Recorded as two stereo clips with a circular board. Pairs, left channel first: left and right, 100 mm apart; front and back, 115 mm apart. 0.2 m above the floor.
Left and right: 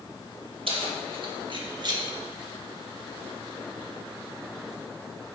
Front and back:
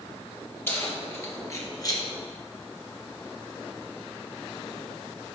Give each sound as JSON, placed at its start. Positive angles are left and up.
{"t": 0.7, "sound": "keys jangling", "azimuth_deg": -70, "distance_m": 3.0}